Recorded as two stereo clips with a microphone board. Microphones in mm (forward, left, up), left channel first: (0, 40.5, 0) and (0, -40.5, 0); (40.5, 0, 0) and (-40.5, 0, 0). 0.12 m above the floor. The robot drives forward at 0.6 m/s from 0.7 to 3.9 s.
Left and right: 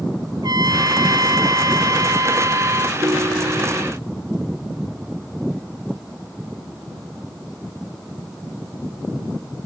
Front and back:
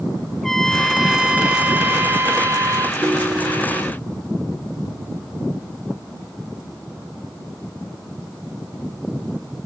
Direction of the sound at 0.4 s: 85° right.